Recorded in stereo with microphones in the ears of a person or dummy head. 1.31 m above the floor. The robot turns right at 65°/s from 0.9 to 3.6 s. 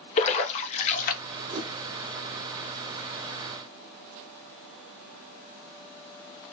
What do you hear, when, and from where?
0.2 s a splash: 35° left (ahead or behind), 0.7 m; by 1.2 s 50° left (ahead or behind), 0.7 m
1.5 s a whoosh: 35° right (ahead or behind), 0.6 m; by 1.7 s 25° right (ahead or behind), 0.6 m